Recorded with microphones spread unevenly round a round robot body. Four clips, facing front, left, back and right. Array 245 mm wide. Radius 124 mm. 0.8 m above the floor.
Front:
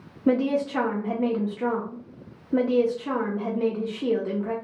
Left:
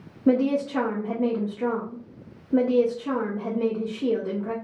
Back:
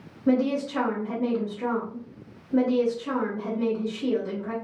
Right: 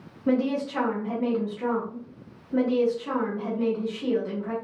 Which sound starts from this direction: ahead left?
A woman speaking, at 0.3 s.